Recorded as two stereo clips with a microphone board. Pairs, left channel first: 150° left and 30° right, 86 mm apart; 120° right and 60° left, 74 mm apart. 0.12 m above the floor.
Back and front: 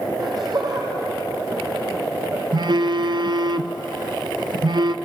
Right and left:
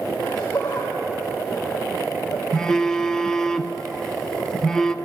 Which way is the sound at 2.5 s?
40° right.